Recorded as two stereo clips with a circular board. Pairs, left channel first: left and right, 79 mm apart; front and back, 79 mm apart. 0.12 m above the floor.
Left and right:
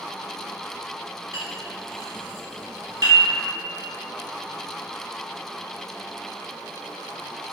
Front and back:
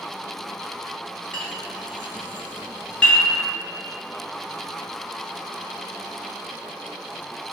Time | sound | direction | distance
1.3 | a clink | 70° right | 1.6 m